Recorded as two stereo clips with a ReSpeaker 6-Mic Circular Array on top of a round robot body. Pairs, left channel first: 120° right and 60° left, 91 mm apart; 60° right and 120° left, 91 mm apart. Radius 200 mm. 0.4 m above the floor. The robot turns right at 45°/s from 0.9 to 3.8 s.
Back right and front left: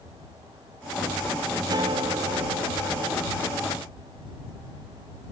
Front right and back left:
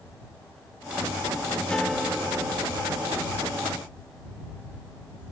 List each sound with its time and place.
1.7 s a guitar: 20° left; by 3.2 s 85° left